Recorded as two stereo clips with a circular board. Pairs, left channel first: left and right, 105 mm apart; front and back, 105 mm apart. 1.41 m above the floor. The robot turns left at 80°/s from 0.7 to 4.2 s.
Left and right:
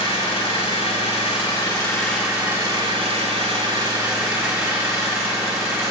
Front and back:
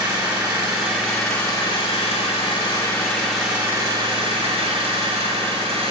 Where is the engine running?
125° left, 2.0 m; by 5.9 s 155° right, 2.0 m.